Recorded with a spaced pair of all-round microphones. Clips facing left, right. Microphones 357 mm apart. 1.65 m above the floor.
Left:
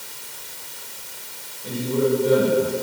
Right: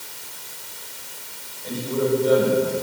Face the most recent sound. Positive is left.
turn(degrees=35)  # may be behind; listen again after turning